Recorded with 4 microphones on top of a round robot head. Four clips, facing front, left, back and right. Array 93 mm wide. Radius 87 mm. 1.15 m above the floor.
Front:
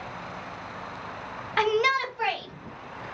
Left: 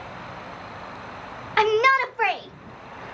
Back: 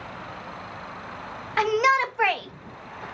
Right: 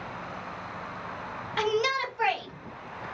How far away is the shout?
About 0.6 m.